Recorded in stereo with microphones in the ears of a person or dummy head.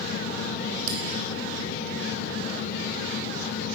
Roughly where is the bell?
Right.